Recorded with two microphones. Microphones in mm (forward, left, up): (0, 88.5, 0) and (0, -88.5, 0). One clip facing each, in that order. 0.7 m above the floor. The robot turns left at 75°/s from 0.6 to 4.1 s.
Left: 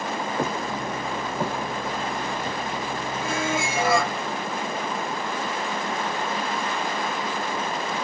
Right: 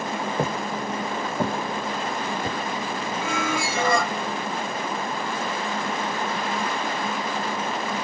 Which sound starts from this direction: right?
Footsteps, at 0.4 s.